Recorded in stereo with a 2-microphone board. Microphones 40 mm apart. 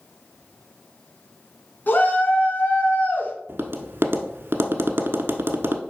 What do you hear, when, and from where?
1.9 s a shout: 45° left (ahead or behind), 2.5 m
3.5 s tapping: 65° right (ahead or behind), 1.1 m